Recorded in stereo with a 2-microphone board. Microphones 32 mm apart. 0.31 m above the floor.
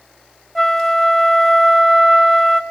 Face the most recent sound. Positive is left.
turn(degrees=10)  # may be behind; listen again after turning